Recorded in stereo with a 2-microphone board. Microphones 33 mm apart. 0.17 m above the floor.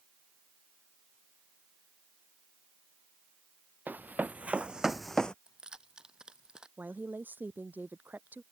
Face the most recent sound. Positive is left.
turn(degrees=-80)